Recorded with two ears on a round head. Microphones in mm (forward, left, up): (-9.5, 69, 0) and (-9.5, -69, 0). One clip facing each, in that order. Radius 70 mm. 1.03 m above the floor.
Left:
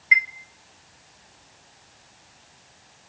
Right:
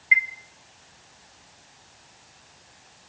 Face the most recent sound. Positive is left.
turn(degrees=50)  # may be behind; listen again after turning